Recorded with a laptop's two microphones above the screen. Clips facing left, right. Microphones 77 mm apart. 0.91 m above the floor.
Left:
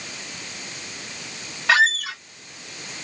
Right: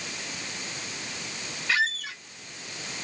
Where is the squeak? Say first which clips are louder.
Left 9 dB; 85° left.